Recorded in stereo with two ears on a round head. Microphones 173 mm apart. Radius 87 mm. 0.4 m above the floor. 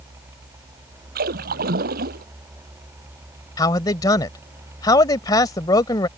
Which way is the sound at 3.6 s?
20° left (ahead or behind).